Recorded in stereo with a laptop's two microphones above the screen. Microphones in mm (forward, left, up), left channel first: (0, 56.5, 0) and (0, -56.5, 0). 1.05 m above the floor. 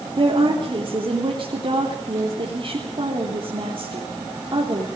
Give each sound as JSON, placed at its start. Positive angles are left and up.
{"t": 0.2, "sound": "a woman speaking", "side_deg": -50, "distance_m": 3.5}